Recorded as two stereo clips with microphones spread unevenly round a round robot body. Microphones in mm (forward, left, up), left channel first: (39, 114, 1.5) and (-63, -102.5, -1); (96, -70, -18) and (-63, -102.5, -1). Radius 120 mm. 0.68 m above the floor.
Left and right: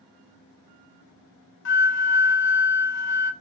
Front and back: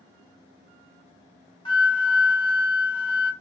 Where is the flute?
60° left, 0.6 m.